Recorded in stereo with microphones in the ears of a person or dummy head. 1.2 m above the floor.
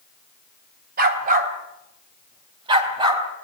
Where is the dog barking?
55° right (ahead or behind), 3 m; by 3.2 s 25° right (ahead or behind), 3.5 m.